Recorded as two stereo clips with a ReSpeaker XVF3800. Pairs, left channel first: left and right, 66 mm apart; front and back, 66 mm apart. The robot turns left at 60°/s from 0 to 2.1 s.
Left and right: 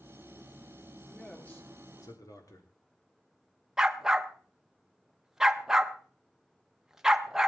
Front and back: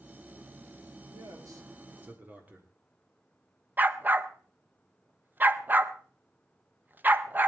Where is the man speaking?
Straight behind, 3.5 m; by 2.7 s 115° left, 3.5 m.